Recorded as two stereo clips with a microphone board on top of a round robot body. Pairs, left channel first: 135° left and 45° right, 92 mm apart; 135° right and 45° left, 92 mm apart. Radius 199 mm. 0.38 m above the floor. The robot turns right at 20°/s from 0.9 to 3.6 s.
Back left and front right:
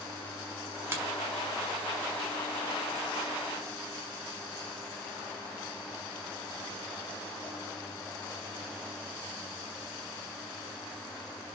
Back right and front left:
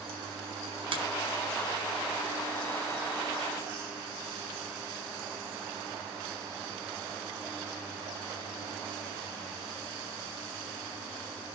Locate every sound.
0.9 s a finger snap: 20° left, 5.5 m; by 1.0 s 25° left, 5.5 m